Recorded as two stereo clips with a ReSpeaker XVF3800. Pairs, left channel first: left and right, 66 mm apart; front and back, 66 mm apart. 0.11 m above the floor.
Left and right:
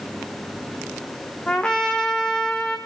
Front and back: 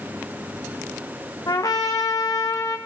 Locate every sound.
1.5 s a trumpet: 15° left, 1.3 m